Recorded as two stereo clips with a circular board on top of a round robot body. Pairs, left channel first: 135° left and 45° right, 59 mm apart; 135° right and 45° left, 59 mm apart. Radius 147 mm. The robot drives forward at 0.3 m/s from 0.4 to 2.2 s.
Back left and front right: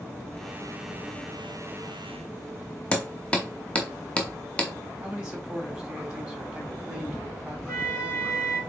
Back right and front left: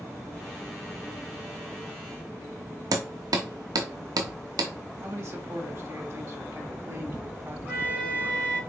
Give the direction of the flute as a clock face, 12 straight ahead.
8 o'clock.